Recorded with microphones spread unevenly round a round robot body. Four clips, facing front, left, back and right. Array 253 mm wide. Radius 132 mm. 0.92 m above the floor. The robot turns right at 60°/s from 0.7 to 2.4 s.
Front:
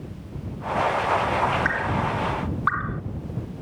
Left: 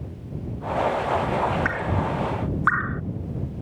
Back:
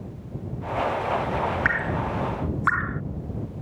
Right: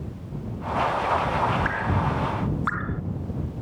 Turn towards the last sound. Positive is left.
turn(degrees=155)